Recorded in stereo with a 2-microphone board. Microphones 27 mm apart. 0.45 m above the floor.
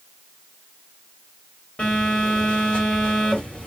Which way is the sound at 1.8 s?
45° left (ahead or behind).